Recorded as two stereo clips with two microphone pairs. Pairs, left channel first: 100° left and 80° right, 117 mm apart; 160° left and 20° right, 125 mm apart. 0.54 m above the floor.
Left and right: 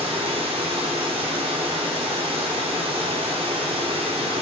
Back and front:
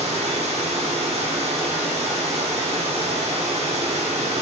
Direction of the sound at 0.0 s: 50° right.